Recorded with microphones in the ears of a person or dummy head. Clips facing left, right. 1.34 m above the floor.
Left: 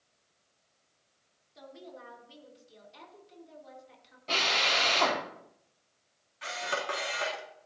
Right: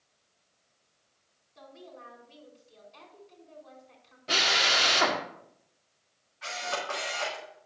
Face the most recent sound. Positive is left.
turn(degrees=40)  # may be behind; listen again after turning